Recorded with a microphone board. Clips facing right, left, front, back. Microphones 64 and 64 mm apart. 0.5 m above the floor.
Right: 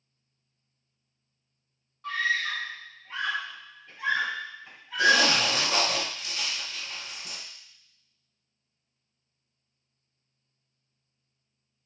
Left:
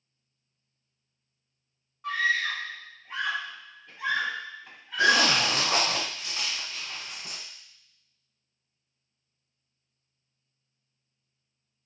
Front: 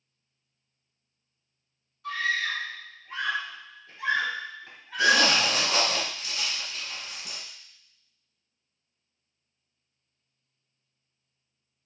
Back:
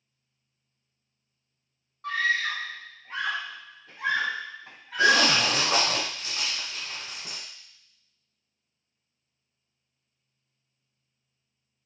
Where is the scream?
165° left, 2 m; by 5.5 s 175° right, 4 m.